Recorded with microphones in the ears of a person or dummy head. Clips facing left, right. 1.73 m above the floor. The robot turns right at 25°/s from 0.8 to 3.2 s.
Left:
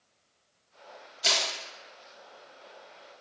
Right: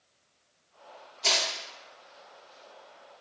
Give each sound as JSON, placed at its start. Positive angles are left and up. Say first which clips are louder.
{"t": 1.2, "sound": "crushing", "louder": "right 1 dB", "side_deg": 15, "distance_m": 0.8}